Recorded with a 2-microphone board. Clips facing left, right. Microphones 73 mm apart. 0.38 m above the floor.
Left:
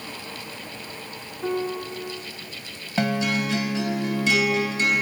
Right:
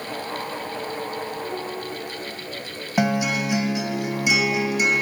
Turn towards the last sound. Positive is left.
turn(degrees=-15)  # may be behind; listen again after turning